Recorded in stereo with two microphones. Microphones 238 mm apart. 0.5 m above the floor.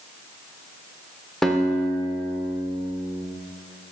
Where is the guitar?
Centre (ahead or behind), 0.8 m.